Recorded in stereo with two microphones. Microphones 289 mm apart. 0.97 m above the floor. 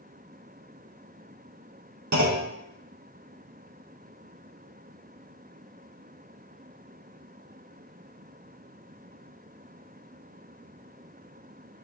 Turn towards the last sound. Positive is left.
turn(degrees=-70)  # may be behind; listen again after turning